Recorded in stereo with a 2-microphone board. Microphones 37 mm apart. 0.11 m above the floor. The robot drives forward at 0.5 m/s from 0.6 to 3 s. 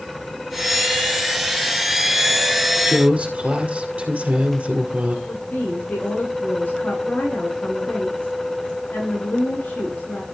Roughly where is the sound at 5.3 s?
Left.